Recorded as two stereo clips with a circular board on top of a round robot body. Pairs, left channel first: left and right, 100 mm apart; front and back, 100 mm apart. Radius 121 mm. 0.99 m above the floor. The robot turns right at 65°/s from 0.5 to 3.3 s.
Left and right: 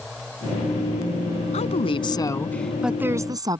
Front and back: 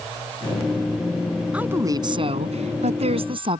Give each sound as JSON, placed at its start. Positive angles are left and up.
{"t": 1.5, "sound": "a woman speaking", "azimuth_deg": 100}